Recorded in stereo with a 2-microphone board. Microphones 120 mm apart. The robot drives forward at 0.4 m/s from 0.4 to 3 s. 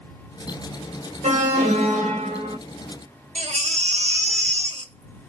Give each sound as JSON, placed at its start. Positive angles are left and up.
{"t": 1.2, "sound": "an alarm", "side_deg": -80, "distance_m": 1.3}
{"t": 3.4, "sound": "a baby crying", "side_deg": -75, "distance_m": 0.7}